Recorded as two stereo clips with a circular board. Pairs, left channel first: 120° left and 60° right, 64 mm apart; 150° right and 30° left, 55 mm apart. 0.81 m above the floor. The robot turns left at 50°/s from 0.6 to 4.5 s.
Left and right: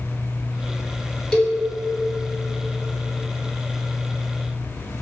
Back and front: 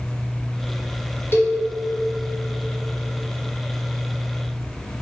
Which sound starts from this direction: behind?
A cowbell, at 1.3 s.